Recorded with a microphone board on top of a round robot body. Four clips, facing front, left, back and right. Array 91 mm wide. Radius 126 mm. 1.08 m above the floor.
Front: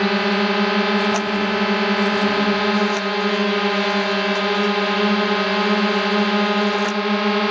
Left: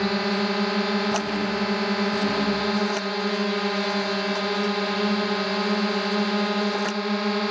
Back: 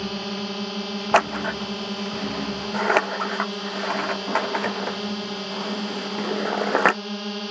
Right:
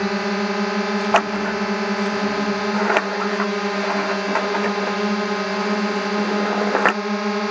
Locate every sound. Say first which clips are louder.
0.0 s a drone: right 2 dB, front 12 dB; 15° right
1.1 s scissors: right 6 dB, front 1 dB; 130° right